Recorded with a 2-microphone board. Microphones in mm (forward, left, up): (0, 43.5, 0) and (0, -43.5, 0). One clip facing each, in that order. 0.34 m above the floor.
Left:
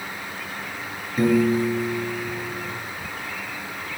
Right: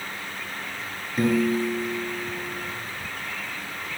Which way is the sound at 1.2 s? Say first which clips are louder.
Left 3 dB; centre (ahead or behind).